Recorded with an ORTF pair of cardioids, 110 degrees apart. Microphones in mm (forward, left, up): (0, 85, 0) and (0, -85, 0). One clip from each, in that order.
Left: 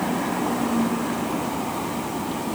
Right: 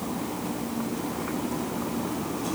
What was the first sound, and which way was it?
Only background noise.